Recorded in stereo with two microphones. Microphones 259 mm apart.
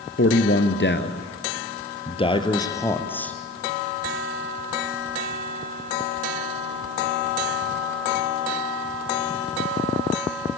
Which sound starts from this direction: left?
A man speaking, at 0.2 s.